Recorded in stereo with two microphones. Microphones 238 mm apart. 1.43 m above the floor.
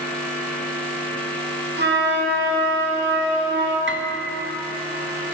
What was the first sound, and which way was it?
A flute, 45° right (ahead or behind).